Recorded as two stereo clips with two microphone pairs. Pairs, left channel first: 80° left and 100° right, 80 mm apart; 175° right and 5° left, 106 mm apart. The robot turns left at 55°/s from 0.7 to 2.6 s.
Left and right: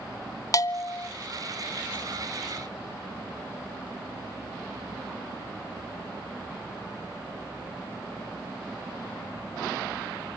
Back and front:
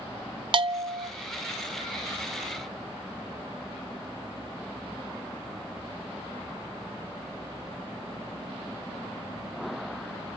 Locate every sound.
0.5 s a bell: 40° left, 0.5 m; by 1.1 s 15° left, 0.5 m